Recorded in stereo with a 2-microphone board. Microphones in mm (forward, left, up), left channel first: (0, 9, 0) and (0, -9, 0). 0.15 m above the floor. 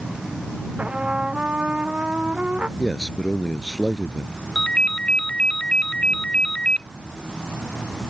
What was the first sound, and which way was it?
A trumpet, 80° right.